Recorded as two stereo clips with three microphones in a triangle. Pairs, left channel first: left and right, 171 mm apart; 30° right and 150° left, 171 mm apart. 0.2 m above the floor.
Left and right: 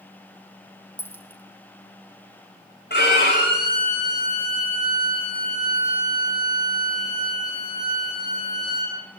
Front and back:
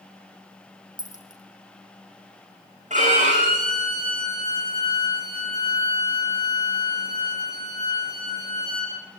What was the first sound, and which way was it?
A dropped coin, 10° left.